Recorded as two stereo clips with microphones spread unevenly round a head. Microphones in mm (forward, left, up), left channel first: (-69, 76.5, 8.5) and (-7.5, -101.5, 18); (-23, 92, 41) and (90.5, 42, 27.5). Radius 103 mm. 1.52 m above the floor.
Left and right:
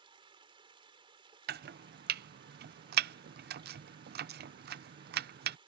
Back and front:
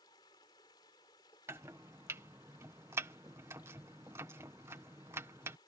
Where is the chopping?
105° right.